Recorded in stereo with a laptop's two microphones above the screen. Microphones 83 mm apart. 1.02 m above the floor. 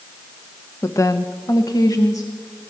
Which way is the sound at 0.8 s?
30° left (ahead or behind).